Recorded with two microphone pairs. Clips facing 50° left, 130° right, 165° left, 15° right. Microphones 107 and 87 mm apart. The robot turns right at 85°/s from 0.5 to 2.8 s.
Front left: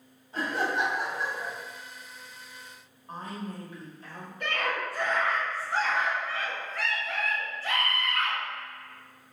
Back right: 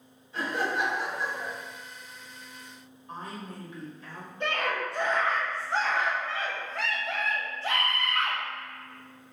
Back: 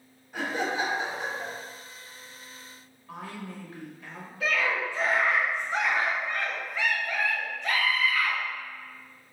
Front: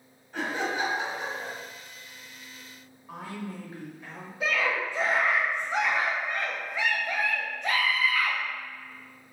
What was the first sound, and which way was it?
Laughter, 85° left.